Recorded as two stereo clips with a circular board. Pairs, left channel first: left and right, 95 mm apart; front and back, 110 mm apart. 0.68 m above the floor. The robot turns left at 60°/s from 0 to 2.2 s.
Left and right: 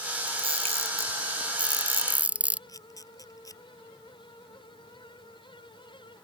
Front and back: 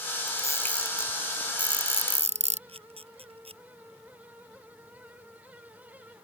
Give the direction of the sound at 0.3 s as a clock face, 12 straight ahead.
2 o'clock.